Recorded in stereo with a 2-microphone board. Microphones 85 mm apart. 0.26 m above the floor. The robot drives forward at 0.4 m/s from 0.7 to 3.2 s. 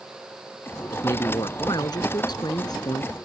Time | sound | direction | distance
0.9 | a man speaking | 60° left (ahead or behind) | ?